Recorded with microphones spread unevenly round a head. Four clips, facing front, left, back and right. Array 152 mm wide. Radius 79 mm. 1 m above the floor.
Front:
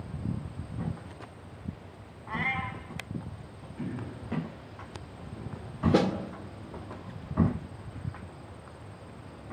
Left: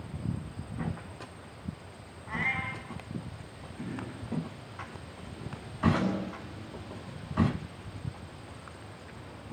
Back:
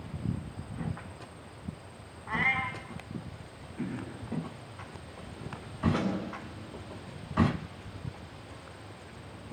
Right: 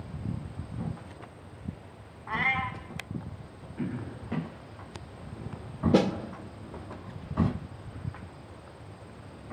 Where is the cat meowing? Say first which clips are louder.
Right 4 dB, back 2 dB; 120° right, 2.5 m.